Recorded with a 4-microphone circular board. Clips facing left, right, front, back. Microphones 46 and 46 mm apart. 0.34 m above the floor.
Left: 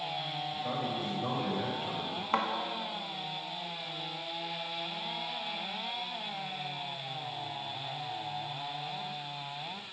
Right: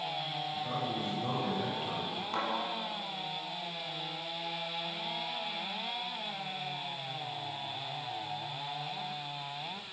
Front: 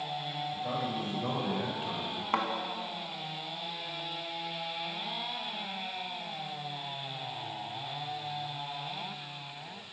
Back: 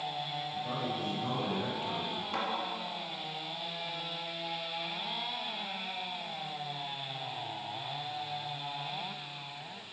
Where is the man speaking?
45° left, 1.8 m; by 2.2 s 25° right, 1.3 m.